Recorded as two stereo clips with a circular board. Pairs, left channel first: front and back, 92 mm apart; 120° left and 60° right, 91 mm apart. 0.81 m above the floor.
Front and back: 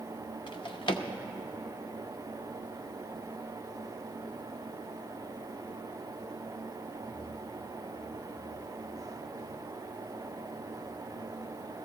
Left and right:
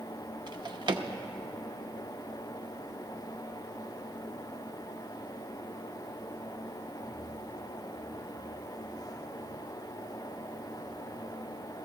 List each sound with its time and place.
0.5 s a drawer: 25° right, 0.8 m